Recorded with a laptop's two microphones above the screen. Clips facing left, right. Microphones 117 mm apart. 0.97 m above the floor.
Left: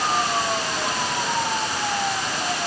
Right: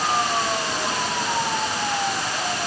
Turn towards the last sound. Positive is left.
No sound to turn to.